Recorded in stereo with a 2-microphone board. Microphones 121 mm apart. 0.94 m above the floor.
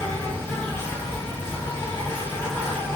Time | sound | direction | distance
0.0 | an insect | 20° left (ahead or behind) | 1.8 m